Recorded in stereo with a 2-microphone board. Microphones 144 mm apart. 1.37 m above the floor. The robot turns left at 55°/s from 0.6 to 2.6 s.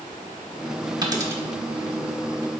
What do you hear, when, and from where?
1.0 s a dropped coin: 30° right (ahead or behind), 1.2 m; by 1.4 s 15° right (ahead or behind), 1.2 m